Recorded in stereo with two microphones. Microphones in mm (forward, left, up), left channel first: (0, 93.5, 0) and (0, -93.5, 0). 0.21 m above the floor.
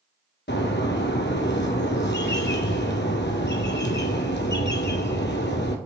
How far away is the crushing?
I don't hear crushing.